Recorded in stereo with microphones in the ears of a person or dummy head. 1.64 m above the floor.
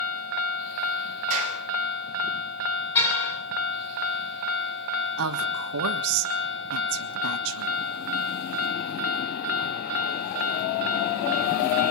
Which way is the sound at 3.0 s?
15° left (ahead or behind).